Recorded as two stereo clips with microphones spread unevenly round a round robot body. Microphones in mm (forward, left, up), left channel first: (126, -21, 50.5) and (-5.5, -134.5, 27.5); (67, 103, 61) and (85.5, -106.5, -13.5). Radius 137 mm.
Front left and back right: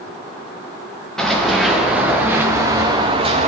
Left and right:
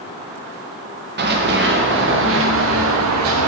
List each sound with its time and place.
1.2 s running footsteps: 45° right, 3 m; by 3.5 s 85° right, 1.7 m